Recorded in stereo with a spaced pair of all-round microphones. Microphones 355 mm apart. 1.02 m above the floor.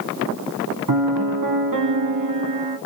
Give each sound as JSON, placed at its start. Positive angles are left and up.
{"t": 0.9, "sound": "a piano", "side_deg": -65, "distance_m": 1.0}